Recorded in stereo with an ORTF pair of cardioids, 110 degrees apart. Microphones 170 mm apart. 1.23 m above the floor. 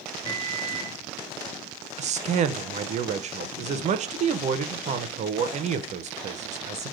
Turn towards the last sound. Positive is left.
turn(degrees=-45)